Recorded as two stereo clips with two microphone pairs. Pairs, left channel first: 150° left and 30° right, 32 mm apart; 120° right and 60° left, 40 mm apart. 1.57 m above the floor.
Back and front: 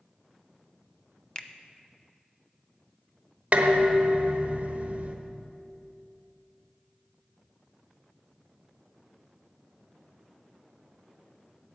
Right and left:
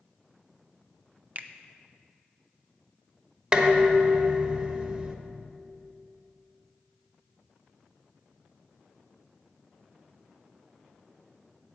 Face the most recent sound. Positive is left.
turn(degrees=5)